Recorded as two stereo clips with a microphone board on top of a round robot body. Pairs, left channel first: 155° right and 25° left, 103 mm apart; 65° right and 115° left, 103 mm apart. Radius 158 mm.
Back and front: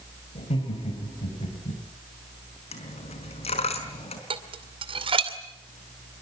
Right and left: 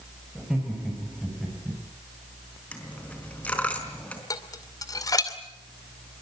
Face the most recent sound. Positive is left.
turn(degrees=-10)